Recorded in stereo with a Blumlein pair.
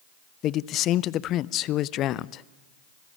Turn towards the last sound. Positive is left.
turn(degrees=35)